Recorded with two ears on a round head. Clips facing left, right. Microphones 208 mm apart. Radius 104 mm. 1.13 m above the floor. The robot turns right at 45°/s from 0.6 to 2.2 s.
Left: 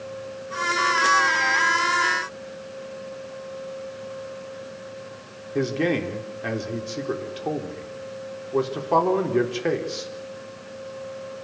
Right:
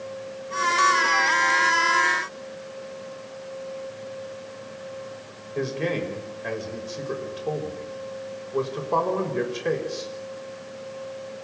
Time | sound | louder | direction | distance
5.5 | a man speaking | left 4 dB | 80° left | 4 m